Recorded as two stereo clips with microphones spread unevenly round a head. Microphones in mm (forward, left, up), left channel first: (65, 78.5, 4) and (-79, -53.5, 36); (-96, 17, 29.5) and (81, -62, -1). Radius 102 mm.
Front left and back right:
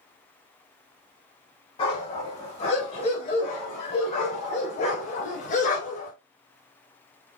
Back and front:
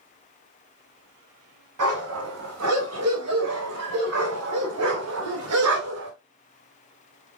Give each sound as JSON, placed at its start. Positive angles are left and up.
{"t": 1.8, "sound": "a dog barking", "azimuth_deg": -25, "distance_m": 5.0}